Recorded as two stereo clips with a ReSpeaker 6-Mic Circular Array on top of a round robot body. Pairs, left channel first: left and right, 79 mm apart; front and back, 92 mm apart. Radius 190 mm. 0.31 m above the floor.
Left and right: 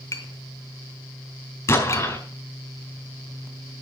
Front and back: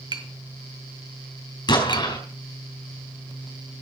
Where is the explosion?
35° left, 5 m.